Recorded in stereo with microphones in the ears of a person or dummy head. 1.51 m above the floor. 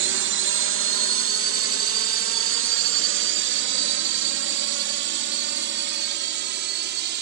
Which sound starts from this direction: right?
A drone, at 0.0 s.